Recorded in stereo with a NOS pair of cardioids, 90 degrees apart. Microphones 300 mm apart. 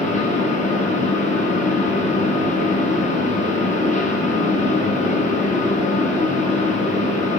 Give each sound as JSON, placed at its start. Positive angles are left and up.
{"t": 0.0, "sound": "a fan", "azimuth_deg": 25, "distance_m": 1.0}